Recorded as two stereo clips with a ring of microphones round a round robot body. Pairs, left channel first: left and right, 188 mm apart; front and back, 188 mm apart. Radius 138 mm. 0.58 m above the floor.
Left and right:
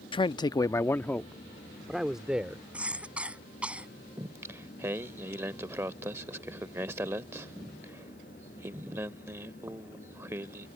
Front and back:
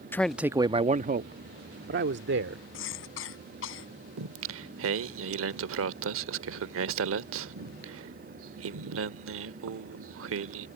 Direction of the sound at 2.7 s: 5° right.